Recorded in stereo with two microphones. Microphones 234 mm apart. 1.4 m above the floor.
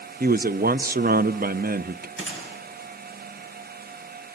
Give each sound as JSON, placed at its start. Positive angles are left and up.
{"t": 0.2, "sound": "a man speaking", "side_deg": -40, "distance_m": 0.7}
{"t": 2.2, "sound": "a gunshot", "side_deg": -55, "distance_m": 8.5}